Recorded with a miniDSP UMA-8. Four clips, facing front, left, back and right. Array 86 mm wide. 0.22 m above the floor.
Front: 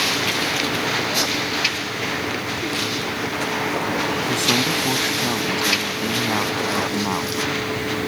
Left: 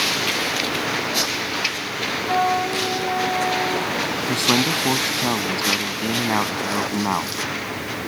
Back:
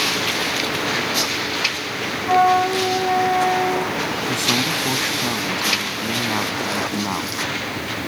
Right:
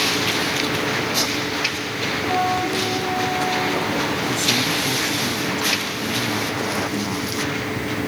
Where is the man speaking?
85° left.